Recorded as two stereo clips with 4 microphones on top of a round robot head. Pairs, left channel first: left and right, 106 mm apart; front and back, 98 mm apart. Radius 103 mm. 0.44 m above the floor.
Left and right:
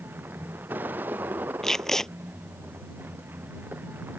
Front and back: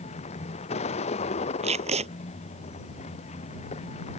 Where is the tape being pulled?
175° left.